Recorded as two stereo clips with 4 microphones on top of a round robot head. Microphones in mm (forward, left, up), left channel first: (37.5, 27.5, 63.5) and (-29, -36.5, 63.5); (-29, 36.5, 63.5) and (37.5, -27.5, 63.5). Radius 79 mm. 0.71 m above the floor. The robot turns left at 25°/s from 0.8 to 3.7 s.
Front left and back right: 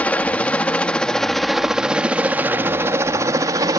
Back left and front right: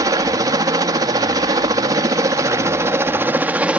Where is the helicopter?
25° right; by 3.8 s 115° right.